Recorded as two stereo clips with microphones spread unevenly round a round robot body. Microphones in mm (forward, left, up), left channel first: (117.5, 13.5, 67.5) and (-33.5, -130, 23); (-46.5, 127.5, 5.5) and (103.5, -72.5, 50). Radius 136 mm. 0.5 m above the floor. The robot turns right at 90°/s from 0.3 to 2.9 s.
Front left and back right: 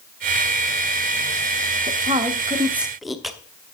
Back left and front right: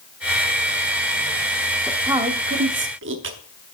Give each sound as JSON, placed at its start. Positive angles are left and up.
{"t": 1.9, "sound": "a woman speaking", "azimuth_deg": -160, "distance_m": 0.9}